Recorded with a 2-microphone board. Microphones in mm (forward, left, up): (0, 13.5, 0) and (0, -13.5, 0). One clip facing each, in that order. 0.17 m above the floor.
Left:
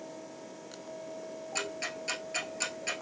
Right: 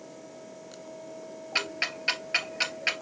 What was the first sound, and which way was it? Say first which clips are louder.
Ticking: right 7 dB; 55° right (ahead or behind).